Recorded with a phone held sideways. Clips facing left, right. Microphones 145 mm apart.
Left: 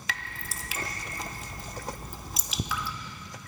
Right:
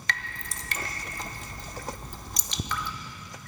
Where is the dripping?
5° left (ahead or behind), 0.6 m.